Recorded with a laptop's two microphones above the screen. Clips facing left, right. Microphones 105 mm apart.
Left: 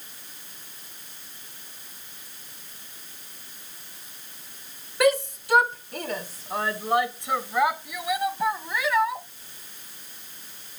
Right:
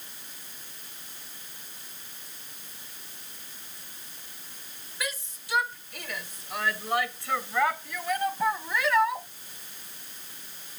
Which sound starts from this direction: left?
A shout, at 5.0 s.